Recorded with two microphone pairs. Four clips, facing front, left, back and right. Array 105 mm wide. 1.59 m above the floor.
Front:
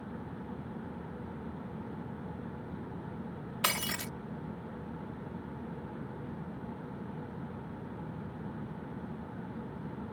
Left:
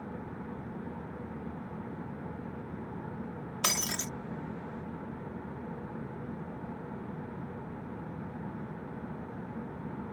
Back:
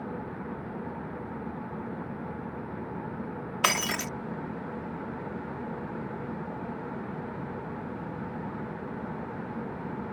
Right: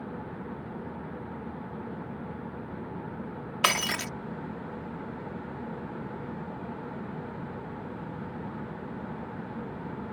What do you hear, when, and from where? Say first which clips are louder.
3.6 s breaking glass: right 8 dB, back 7 dB; 150° right